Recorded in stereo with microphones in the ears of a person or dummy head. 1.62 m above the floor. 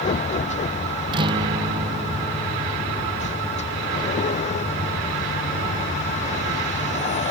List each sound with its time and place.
0.0 s a vehicle: 35° left (ahead or behind)
1.1 s a guitar: 25° right (ahead or behind)